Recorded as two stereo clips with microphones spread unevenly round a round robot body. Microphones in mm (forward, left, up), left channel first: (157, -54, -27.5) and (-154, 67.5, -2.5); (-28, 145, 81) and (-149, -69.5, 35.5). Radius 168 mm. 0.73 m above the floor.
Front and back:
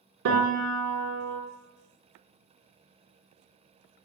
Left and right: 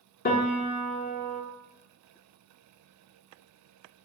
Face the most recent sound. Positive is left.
turn(degrees=110)